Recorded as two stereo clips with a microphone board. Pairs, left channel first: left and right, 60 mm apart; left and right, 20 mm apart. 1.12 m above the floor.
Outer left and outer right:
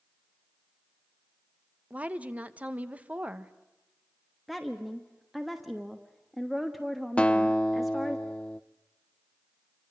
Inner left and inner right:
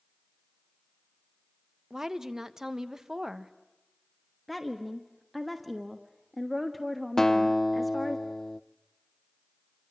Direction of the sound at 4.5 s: Centre (ahead or behind).